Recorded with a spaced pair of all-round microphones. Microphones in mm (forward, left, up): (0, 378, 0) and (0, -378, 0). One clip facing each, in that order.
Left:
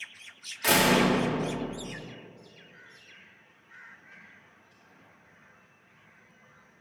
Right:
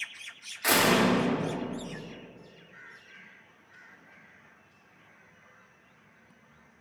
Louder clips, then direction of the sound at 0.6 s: Left 1 dB; 60° left (ahead or behind).